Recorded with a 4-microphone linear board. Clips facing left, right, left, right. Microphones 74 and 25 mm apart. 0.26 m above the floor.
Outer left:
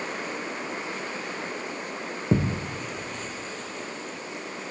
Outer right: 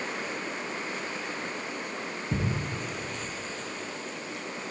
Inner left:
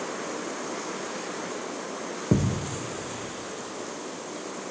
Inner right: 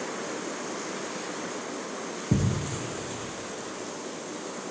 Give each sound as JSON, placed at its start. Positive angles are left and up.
{"t": 2.3, "sound": "a thud", "side_deg": 70, "distance_m": 3.0}